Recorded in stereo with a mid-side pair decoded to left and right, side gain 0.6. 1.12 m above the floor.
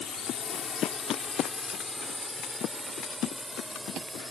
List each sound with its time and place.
0.0 s a drone: 40° left; by 4.3 s 10° right